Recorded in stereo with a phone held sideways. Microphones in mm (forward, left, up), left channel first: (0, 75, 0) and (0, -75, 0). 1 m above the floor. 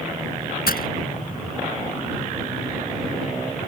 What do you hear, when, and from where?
0.7 s breaking glass: 80° left